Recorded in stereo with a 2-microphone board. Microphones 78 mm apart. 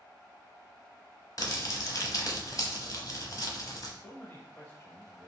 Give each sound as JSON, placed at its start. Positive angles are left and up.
{"t": 1.4, "sound": "crumpling", "side_deg": 55, "distance_m": 0.9}
{"t": 4.0, "sound": "a man speaking", "side_deg": 35, "distance_m": 1.0}